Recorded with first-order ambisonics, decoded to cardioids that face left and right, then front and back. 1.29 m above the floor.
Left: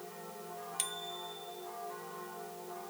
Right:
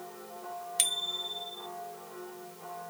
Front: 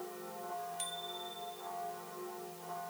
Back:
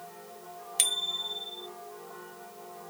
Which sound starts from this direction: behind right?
A bicycle bell, at 0.8 s.